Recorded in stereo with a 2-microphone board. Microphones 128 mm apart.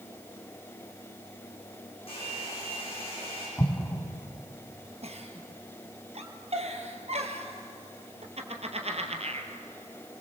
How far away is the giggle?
About 1.7 m.